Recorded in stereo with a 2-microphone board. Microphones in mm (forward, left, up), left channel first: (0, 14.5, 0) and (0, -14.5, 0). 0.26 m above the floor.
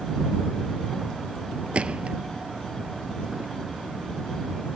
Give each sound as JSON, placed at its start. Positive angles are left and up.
{"t": 1.7, "sound": "a gunshot", "side_deg": -40}